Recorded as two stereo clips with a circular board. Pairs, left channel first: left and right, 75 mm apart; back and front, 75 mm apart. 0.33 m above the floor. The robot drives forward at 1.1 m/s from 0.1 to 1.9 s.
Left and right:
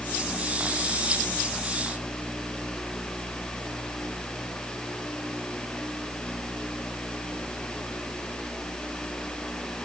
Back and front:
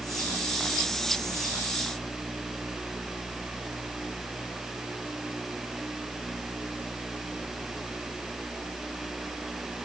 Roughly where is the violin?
No violin in this recording.